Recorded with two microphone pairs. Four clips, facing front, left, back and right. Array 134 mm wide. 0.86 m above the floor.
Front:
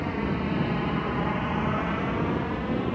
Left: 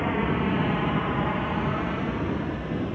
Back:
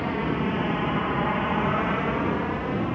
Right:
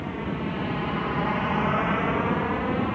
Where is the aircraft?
120° left; by 2.9 s 105° right.